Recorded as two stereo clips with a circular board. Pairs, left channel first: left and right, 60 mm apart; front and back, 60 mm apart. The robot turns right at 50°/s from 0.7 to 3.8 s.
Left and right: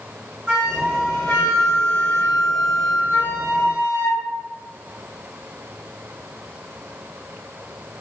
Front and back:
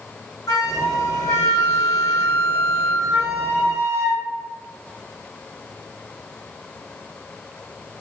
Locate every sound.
0.5 s a flute: 20° right, 1.9 m; by 4.2 s 135° left, 1.9 m